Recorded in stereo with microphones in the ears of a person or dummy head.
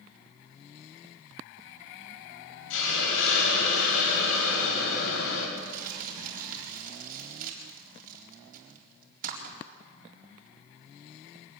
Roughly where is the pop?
No pop in this recording.